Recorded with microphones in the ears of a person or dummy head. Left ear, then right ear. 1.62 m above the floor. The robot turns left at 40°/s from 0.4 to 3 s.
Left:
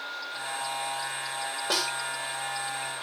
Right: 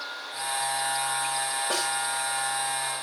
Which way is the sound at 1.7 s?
70° left (ahead or behind).